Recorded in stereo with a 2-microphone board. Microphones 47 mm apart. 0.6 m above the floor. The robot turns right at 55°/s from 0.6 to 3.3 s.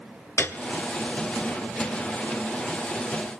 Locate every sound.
0.4 s a piano: 60° left (ahead or behind), 1.1 m